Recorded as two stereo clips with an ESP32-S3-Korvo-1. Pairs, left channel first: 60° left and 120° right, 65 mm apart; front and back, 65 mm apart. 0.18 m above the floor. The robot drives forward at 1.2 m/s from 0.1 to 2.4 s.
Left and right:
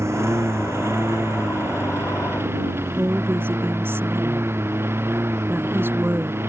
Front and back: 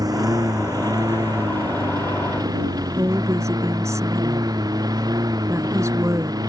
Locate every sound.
0.0 s a lawn mower: 165° right; by 6.5 s 170° right
3.0 s a woman speaking: 165° right